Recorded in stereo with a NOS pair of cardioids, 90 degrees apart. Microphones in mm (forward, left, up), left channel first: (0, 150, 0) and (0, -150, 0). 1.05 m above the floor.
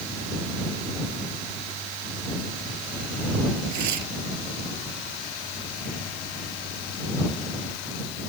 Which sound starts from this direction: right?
Tearing paper, at 3.7 s.